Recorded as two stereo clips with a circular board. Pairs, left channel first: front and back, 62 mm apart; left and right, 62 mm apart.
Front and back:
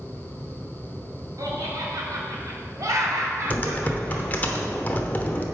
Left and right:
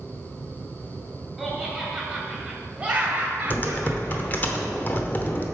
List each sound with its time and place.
1.4 s laughter: straight behind, 2.5 m; by 4.5 s 135° right, 2.5 m
3.5 s typing on a keyboard: 45° left, 0.9 m